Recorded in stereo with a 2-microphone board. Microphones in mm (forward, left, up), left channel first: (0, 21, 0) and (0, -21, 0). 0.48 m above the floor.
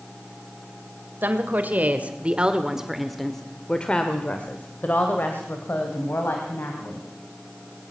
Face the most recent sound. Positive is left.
turn(degrees=65)  # may be behind; listen again after turning